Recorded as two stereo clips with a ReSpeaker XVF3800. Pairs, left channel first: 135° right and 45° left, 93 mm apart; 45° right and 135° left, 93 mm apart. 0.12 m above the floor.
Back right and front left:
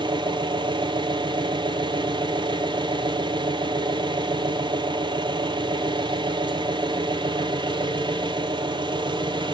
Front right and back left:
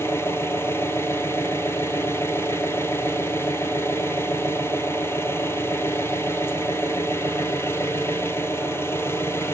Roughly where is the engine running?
Ahead.